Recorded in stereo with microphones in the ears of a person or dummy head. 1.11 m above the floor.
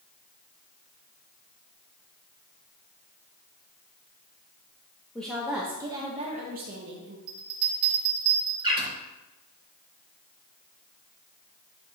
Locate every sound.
5.2 s a woman speaking: 5° left (ahead or behind), 1.0 m; by 7.2 s 55° right (ahead or behind), 1.2 m
7.3 s a bell: 55° right (ahead or behind), 2.5 m
8.6 s a bird: 25° right (ahead or behind), 3 m